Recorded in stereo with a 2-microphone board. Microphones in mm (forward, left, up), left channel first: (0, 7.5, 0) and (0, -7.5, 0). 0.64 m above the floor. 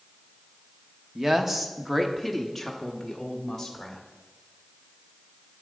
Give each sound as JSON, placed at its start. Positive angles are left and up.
{"t": 1.1, "sound": "a woman speaking", "side_deg": -35, "distance_m": 0.9}